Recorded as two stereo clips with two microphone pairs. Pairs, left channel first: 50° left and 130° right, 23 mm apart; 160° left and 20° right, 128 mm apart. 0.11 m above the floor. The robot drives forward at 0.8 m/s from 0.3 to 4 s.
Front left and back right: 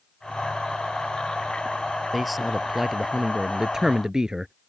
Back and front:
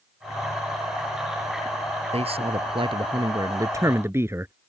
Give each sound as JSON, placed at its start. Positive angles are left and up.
{"t": 2.1, "sound": "a man speaking", "azimuth_deg": -35}